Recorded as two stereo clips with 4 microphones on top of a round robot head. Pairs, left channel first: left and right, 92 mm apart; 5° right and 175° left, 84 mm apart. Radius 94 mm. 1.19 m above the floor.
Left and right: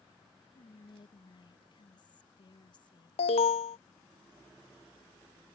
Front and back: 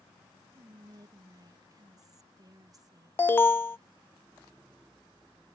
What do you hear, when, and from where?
0.6 s whispering: 130° left
3.2 s an alarm: 60° left